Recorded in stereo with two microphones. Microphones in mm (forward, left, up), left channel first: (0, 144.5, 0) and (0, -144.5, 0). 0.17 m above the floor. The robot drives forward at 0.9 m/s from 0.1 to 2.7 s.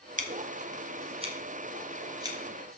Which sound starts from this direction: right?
Scissors, at 0.2 s.